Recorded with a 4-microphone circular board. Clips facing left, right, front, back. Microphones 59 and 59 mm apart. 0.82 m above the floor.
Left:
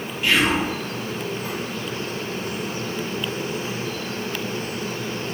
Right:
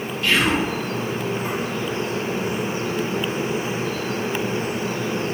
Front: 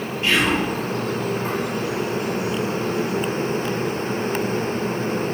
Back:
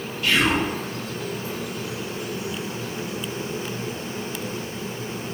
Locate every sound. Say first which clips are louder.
0.2 s whispering: even, front 1 dB; 30° left, 0.6 m